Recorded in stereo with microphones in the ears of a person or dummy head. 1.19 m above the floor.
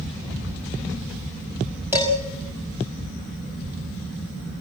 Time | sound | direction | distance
1.9 | dishes clattering | 10° right (ahead or behind) | 4.5 m